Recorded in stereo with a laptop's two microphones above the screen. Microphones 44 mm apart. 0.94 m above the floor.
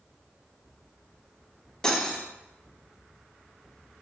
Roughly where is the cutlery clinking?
Centre.